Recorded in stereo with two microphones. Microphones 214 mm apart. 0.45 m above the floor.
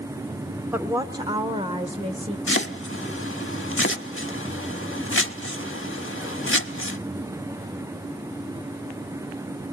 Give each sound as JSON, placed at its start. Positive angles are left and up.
{"t": 0.7, "sound": "a woman speaking", "side_deg": -10, "distance_m": 0.8}
{"t": 2.5, "sound": "chopping", "side_deg": 75, "distance_m": 0.7}